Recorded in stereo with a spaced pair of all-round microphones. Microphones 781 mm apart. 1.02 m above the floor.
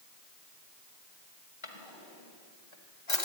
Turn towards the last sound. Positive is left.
turn(degrees=35)  # may be behind; listen again after turning